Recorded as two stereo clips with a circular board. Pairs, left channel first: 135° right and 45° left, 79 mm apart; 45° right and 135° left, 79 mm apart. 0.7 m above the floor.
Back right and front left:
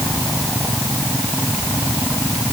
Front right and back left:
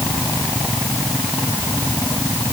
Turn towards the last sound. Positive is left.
No sound to turn to.